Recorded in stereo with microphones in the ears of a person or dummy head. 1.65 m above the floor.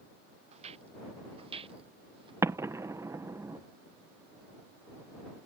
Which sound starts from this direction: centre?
An explosion, at 2.4 s.